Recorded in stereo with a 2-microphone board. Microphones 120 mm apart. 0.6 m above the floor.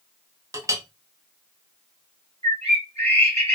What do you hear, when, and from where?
0.5 s a clink: 25° right (ahead or behind), 0.7 m
2.4 s a bird: 60° right (ahead or behind), 2 m